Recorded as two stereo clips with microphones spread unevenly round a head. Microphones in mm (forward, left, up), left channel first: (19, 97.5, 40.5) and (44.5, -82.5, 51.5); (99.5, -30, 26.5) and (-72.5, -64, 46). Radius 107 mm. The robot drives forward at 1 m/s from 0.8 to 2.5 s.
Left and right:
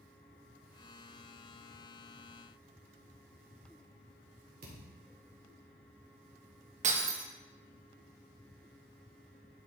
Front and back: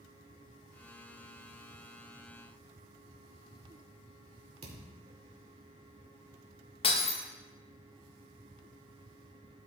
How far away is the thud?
About 2 m.